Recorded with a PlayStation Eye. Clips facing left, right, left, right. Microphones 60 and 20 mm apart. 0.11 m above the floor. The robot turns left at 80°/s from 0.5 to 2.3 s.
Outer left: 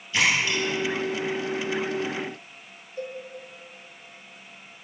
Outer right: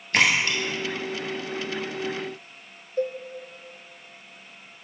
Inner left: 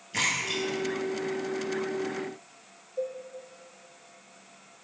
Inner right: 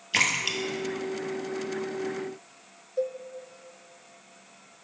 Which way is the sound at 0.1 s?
60° right (ahead or behind).